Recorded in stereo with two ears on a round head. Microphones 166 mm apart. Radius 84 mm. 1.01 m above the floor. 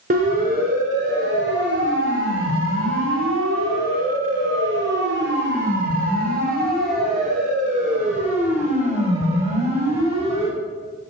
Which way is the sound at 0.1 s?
45° right (ahead or behind).